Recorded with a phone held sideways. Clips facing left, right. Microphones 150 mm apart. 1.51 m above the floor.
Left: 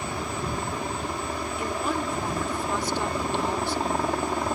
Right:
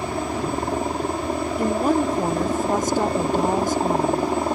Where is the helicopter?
50° right (ahead or behind); by 4.6 s 25° right (ahead or behind).